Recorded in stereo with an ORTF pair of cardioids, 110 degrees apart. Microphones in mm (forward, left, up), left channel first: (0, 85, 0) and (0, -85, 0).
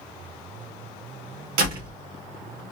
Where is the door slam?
70° right, 1.5 m.